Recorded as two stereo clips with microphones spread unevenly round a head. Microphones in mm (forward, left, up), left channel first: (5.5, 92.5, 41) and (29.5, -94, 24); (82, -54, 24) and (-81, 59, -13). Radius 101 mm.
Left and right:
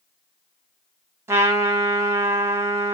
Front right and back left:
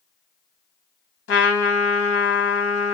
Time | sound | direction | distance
1.3 | a trumpet | 15° right | 1.0 m